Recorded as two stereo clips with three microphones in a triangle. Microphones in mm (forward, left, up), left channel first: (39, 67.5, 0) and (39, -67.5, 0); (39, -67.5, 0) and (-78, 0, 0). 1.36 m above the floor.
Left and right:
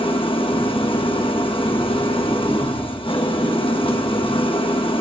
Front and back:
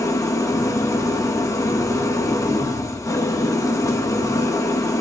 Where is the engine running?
35° left, 1.3 m.